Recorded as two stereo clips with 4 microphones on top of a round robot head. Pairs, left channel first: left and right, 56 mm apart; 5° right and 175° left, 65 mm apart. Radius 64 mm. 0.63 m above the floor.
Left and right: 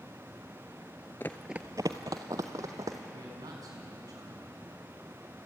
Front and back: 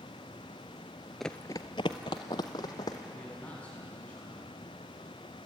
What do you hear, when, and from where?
1.2 s running footsteps: 80° left, 0.6 m; by 3.0 s 45° right, 2 m
3.1 s a man speaking: 75° right, 6 m